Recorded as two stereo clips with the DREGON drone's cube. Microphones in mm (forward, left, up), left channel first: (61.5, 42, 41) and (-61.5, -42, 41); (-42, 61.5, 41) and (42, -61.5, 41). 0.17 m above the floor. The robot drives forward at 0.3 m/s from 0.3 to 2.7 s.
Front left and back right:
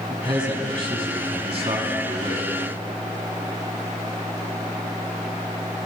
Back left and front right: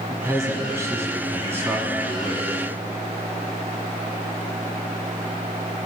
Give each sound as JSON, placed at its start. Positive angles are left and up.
{"t": 0.1, "sound": "a man speaking", "azimuth_deg": -110, "distance_m": 2.0}